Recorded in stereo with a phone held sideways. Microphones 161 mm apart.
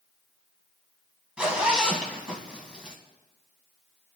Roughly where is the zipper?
Centre.